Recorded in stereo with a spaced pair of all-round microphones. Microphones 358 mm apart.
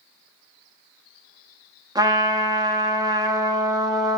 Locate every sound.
1.9 s a trumpet: 10° right (ahead or behind), 0.7 m